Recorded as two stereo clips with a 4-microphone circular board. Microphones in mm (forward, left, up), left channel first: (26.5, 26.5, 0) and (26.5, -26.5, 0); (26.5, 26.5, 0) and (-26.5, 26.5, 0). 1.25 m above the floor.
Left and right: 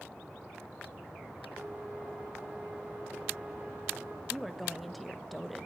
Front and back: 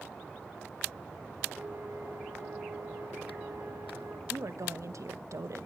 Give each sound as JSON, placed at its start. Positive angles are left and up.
{"t": 1.5, "sound": "a flute", "azimuth_deg": -150, "distance_m": 3.0}
{"t": 4.3, "sound": "a woman speaking", "azimuth_deg": 180, "distance_m": 1.1}